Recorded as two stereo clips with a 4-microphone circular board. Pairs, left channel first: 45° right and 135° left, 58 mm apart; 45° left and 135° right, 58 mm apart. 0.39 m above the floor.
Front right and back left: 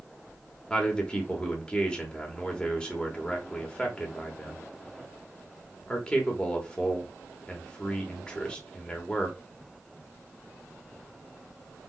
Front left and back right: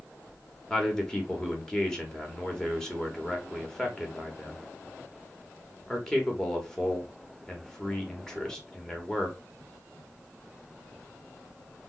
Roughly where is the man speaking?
Ahead.